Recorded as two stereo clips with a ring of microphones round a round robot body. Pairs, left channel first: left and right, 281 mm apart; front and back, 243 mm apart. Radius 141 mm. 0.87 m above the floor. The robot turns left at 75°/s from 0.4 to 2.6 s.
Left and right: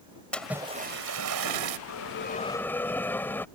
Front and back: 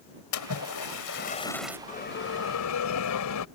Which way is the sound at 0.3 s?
5° left.